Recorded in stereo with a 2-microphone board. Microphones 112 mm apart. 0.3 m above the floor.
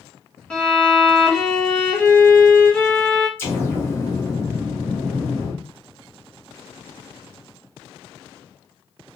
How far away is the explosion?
About 1.1 m.